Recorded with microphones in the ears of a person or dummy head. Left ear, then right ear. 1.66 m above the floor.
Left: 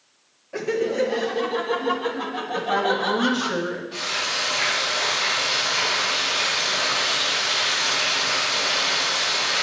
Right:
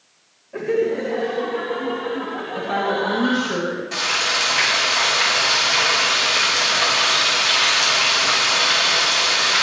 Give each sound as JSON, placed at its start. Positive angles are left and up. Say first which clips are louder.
{"t": 0.5, "sound": "laughter", "louder": "right 2 dB", "side_deg": 75, "distance_m": 1.8}
{"t": 2.5, "sound": "a woman speaking", "louder": "even", "side_deg": 20, "distance_m": 2.5}
{"t": 3.9, "sound": "frying", "louder": "right 6 dB", "side_deg": -55, "distance_m": 6.5}